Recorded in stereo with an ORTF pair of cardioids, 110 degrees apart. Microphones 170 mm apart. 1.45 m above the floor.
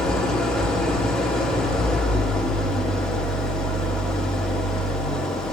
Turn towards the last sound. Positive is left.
turn(degrees=5)